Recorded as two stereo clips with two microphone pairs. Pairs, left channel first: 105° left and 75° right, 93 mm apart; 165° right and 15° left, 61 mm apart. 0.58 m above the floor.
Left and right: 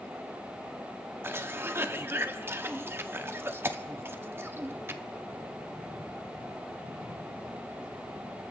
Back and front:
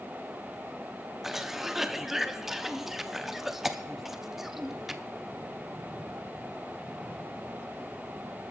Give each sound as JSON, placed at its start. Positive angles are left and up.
{"t": 1.2, "sound": "a cough", "azimuth_deg": -60, "distance_m": 0.6}